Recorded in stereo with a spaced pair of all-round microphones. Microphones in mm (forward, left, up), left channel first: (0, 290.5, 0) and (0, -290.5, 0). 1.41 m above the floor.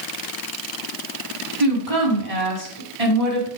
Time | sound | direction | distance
1.6 | a woman speaking | 65° right (ahead or behind) | 4.5 m